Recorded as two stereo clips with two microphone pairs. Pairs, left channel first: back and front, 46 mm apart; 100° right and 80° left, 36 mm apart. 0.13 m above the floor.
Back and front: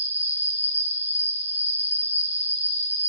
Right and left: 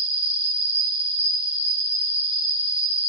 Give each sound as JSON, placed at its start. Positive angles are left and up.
{"t": 0.0, "sound": "an insect", "azimuth_deg": 35, "distance_m": 1.2}